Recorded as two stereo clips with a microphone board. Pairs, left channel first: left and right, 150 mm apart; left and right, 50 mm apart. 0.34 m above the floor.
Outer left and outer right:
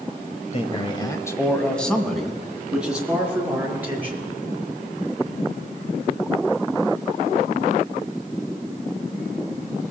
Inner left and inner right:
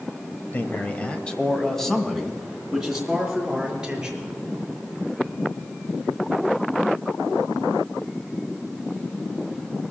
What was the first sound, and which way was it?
A man speaking, 45° left (ahead or behind).